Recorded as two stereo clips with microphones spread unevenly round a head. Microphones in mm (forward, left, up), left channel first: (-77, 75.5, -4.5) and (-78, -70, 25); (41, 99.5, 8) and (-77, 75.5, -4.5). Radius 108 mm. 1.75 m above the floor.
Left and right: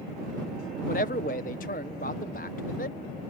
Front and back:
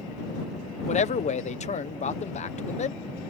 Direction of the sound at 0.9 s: 35° left.